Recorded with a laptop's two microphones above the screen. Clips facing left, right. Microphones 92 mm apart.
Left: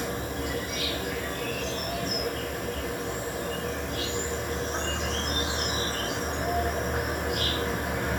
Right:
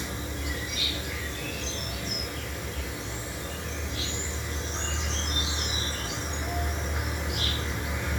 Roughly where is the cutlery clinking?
I don't hear cutlery clinking.